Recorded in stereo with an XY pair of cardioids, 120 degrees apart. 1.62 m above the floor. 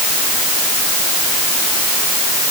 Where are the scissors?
I don't hear scissors.